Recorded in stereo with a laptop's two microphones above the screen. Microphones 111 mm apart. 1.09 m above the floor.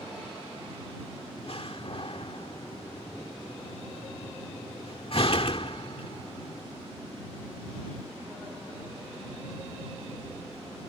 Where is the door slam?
55° left (ahead or behind).